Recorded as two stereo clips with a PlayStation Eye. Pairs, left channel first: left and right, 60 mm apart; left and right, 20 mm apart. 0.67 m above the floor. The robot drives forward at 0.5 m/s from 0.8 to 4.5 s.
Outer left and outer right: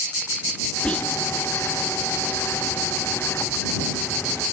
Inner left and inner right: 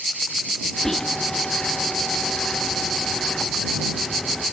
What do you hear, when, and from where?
0.8 s whispering: 20° left (ahead or behind), 0.9 m